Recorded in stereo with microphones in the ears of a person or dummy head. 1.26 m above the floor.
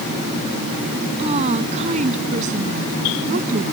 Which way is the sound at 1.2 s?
30° right (ahead or behind).